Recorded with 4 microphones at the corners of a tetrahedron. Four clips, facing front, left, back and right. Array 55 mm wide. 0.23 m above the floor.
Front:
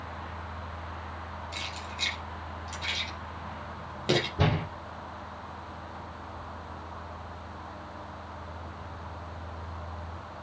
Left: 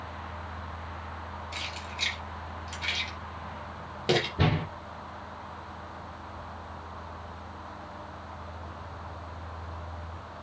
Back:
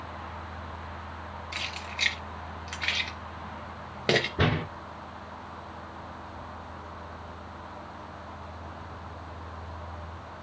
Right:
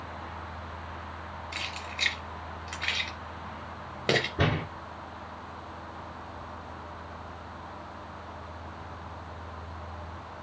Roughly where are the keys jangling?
Behind right.